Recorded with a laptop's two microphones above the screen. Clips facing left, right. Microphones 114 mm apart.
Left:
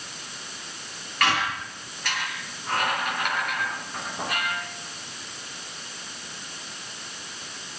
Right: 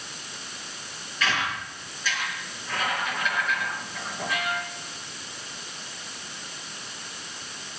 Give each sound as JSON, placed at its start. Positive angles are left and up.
{"t": 1.2, "sound": "a squeak", "side_deg": 65, "distance_m": 3.5}